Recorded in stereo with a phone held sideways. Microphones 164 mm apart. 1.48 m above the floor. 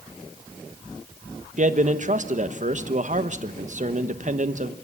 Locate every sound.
1.6 s a man speaking: 50° right (ahead or behind), 1.2 m